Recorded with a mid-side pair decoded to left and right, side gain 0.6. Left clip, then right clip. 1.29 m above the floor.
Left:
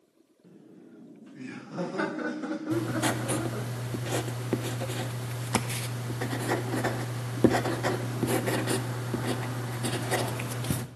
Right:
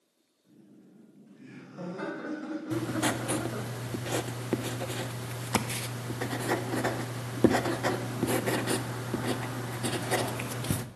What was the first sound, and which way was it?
Laughter, 70° left.